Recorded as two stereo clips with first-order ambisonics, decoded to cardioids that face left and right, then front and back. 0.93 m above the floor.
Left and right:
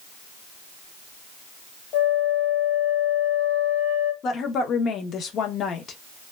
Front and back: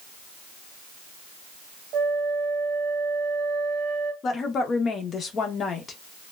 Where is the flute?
125° left, 1.2 m.